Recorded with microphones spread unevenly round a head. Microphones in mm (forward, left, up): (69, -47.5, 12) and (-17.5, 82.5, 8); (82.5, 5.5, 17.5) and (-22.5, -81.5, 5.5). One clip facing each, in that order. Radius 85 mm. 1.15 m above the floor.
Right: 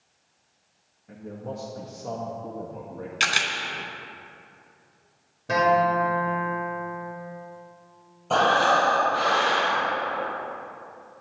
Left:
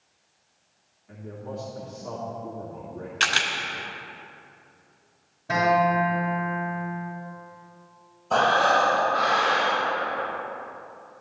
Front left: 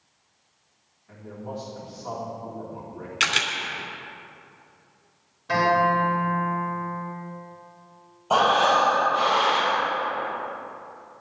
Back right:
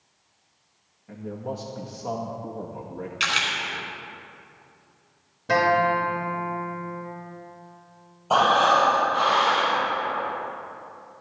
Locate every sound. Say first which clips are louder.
1.1 s a man speaking: right 1 dB, back right 4 dB; 105° right, 1.8 m
3.2 s a camera shutter: left 1 dB, front left 2 dB; 15° left, 2.5 m
5.5 s a guitar: even, even; 105° right, 5 m
8.3 s breathing: even, even; 50° right, 5.5 m